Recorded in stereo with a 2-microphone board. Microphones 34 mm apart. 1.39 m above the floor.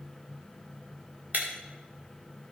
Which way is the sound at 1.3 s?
55° right (ahead or behind).